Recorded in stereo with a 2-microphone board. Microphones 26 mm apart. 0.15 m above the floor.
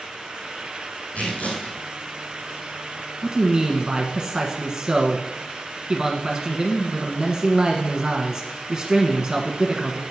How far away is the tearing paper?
About 3.5 m.